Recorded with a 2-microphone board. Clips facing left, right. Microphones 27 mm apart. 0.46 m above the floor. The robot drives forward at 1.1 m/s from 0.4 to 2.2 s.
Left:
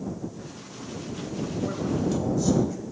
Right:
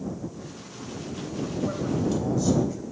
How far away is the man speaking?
About 2 m.